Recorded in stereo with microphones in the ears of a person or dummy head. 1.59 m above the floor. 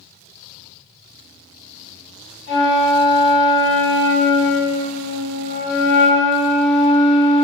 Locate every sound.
2.5 s a flute: 40° left (ahead or behind), 1.3 m